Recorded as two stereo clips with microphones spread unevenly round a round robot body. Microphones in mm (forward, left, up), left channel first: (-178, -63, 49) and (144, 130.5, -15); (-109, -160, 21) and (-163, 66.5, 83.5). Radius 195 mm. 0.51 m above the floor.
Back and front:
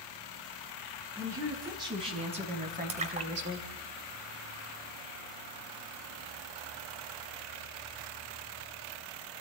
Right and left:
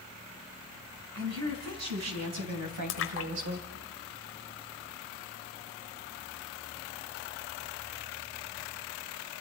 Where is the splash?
40° right, 1.0 m.